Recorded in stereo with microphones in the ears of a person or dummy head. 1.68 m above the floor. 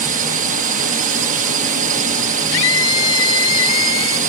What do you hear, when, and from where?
0.0 s a drone: 50° right (ahead or behind); by 4.3 s 45° right (ahead or behind)
2.5 s a scream: 75° left (ahead or behind)